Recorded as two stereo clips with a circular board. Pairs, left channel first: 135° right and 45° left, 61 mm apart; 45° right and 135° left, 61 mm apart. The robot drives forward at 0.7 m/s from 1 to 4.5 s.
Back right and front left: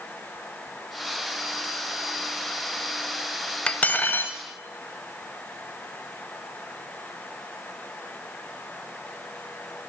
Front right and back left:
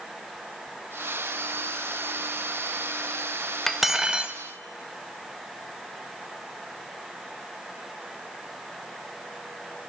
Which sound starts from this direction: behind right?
Cutlery clinking, at 3.7 s.